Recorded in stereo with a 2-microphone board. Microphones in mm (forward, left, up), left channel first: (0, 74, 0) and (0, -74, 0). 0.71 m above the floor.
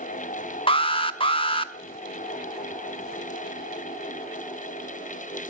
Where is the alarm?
35° left (ahead or behind), 0.9 m.